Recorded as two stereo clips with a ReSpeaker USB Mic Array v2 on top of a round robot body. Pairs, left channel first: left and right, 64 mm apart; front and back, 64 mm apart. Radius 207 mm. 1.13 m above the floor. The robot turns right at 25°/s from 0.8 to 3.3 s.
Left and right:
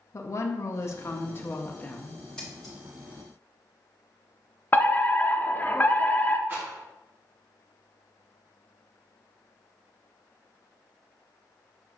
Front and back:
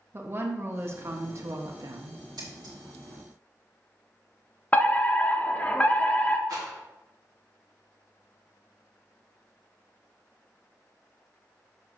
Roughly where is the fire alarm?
Ahead left.